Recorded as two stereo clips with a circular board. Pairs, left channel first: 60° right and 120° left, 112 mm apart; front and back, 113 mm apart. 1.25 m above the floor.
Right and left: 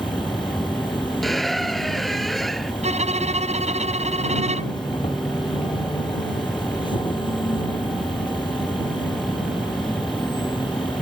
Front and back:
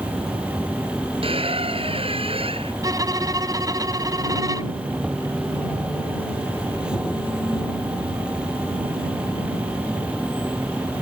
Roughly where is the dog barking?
No dog barking in this recording.